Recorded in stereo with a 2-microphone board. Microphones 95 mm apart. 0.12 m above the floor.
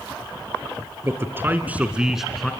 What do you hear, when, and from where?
1.0 s a man speaking: 25° right (ahead or behind), 2.0 m; by 2.5 s 5° left (ahead or behind), 1.7 m